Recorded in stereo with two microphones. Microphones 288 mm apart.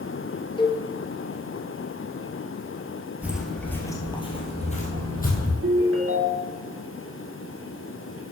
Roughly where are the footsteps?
Centre.